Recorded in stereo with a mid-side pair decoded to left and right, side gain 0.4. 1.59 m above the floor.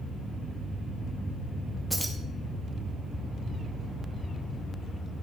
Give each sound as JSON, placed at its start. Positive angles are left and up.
{"t": 1.9, "sound": "keys jangling", "azimuth_deg": -10, "distance_m": 2.0}